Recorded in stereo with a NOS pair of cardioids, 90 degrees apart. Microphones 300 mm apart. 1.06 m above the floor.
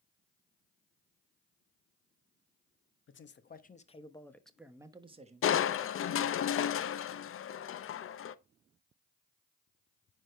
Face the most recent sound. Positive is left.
turn(degrees=45)